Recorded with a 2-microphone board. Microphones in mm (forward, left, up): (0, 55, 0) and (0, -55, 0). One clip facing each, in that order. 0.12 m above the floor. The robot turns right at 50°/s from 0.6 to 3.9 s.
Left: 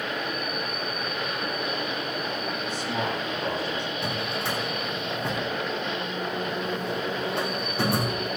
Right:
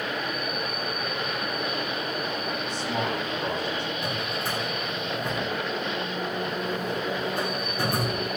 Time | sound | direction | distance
2.6 | a man speaking | 5° left | 5 m
4.0 | a drawer | 75° left (ahead or behind) | 2.5 m